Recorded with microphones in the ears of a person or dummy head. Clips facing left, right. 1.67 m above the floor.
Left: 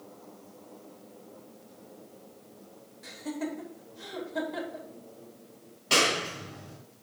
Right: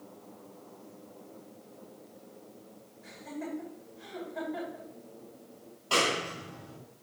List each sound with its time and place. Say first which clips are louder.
3.0 s laughter: left 5 dB; 75° left (ahead or behind), 2.5 m
5.9 s a clap: left 2 dB; 30° left (ahead or behind), 4 m